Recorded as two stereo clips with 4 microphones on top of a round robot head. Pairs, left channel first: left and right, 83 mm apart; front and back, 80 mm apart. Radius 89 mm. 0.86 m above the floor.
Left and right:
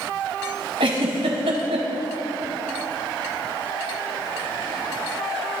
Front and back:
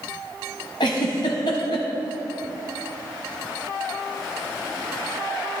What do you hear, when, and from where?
0.8 s a giggle: 50° right, 1.6 m